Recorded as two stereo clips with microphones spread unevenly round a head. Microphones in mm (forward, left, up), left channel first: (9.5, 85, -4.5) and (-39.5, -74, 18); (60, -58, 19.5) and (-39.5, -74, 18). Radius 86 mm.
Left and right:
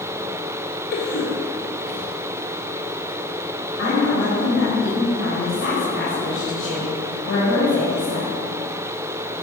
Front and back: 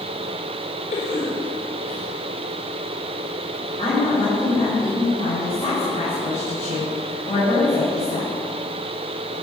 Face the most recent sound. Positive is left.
turn(degrees=75)